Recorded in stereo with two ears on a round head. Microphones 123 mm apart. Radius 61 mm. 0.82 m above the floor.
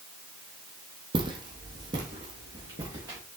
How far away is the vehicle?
I don't hear a vehicle.